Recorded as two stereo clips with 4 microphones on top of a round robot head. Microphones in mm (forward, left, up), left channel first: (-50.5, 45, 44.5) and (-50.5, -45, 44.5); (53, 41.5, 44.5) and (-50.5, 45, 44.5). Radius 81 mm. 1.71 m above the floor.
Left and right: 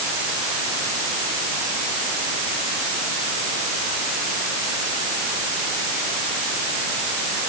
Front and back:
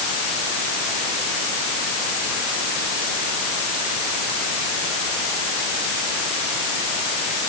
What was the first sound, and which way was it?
Only background noise.